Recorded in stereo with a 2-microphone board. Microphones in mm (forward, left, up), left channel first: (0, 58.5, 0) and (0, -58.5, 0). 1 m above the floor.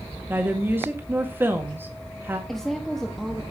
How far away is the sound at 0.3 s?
About 1.7 m.